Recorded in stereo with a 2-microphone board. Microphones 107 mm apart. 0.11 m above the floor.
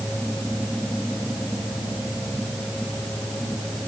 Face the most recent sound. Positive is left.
No sound to turn to.